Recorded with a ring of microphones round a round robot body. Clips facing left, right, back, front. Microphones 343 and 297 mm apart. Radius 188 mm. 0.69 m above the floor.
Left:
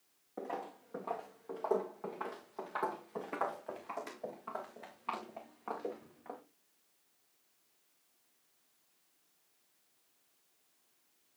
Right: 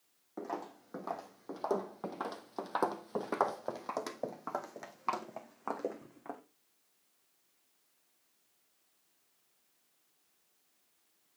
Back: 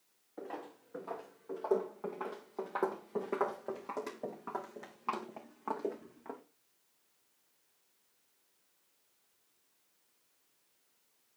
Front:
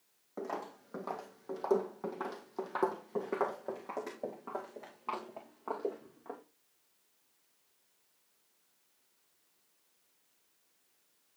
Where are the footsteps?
25° right, 1.8 m; by 6.4 s 125° right, 2.5 m.